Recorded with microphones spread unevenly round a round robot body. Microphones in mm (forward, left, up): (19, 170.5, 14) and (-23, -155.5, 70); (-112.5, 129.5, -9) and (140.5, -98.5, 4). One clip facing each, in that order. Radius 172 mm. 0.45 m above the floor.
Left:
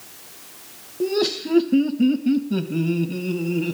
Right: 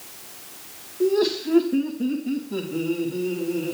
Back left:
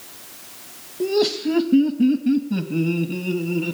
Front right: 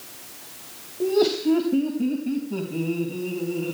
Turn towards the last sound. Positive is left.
turn(degrees=100)